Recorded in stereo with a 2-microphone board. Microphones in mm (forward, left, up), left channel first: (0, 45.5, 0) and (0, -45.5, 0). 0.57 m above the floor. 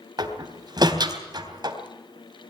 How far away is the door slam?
About 3 m.